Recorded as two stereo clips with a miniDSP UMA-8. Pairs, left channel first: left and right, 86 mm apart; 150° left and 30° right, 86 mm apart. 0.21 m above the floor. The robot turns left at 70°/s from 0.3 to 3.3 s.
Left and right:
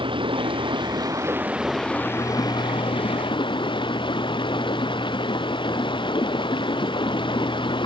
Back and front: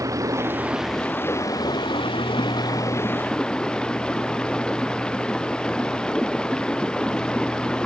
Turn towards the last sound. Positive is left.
turn(degrees=70)